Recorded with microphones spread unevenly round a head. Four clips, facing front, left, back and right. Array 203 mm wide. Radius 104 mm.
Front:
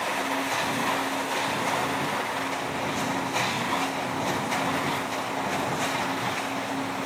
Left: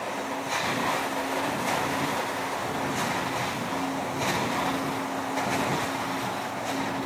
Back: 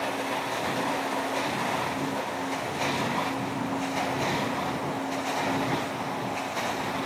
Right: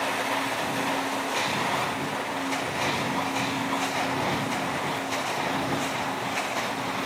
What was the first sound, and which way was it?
Only background noise.